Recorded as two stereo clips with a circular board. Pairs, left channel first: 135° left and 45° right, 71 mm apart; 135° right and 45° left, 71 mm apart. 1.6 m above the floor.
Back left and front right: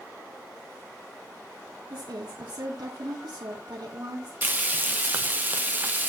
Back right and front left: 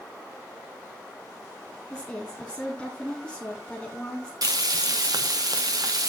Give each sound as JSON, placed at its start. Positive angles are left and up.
{"t": 1.9, "sound": "a woman speaking", "azimuth_deg": -60, "distance_m": 2.5}
{"t": 4.4, "sound": "frying", "azimuth_deg": 20, "distance_m": 0.9}